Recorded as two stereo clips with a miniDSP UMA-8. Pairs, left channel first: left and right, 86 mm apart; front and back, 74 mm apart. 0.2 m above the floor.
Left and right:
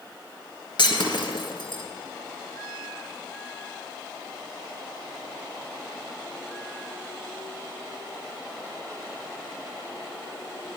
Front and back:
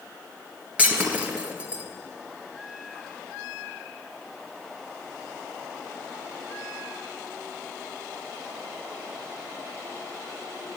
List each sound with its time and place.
0.8 s breaking glass: 110° left, 1.5 m